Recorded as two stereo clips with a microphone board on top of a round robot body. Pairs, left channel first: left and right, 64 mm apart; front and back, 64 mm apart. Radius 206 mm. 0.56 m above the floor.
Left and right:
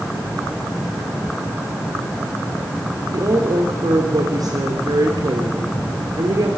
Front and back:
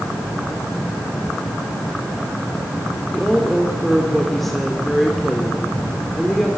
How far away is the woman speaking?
About 3 m.